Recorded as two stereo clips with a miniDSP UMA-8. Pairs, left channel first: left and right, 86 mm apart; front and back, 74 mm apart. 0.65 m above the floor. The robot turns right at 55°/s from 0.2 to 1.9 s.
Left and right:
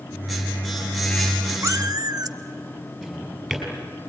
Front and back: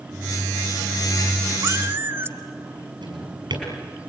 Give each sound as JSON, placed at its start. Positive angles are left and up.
{"t": 1.6, "sound": "a cat meowing", "azimuth_deg": -140, "distance_m": 1.0}
{"t": 3.0, "sound": "a drawer", "azimuth_deg": 175, "distance_m": 5.5}